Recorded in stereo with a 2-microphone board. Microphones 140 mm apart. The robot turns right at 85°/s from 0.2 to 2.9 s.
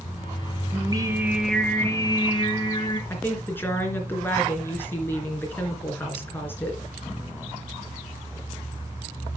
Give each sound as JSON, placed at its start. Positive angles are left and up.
{"t": 0.7, "sound": "singing", "azimuth_deg": -65, "distance_m": 1.4}
{"t": 3.1, "sound": "a woman speaking", "side_deg": 15, "distance_m": 3.0}